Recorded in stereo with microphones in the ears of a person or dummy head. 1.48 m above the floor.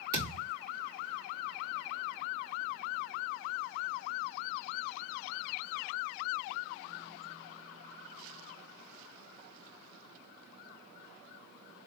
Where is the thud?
15° right (ahead or behind), 2.5 m.